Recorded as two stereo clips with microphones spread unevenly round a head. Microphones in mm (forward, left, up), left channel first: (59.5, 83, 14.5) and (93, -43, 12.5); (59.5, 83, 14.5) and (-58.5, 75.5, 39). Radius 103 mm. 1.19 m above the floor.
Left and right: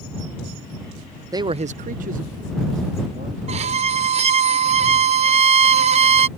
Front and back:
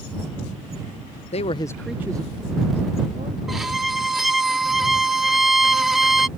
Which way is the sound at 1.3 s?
15° right.